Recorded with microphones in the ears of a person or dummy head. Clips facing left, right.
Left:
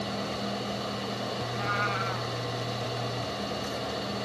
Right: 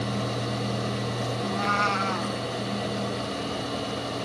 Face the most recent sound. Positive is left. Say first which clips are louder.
# right 5 dB
turn(degrees=-65)  # may be behind; listen again after turning